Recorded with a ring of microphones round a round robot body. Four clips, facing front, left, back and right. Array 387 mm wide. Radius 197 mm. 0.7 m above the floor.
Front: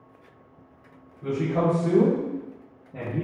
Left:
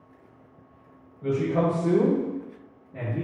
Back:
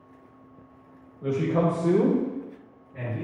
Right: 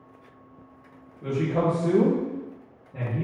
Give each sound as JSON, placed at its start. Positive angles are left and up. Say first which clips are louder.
{"t": 1.2, "sound": "a man speaking", "louder": "left 1 dB, even", "azimuth_deg": -160, "distance_m": 0.9}